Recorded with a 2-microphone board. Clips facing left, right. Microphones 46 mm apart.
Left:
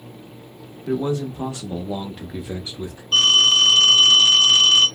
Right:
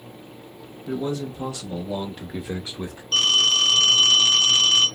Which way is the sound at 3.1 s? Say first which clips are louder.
Left 4 dB; 10° left (ahead or behind).